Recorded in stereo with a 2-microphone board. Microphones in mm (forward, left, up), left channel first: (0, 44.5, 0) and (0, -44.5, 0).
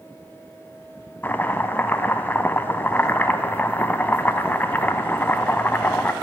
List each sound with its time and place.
1.2 s chopping: 25° left (ahead or behind), 0.5 m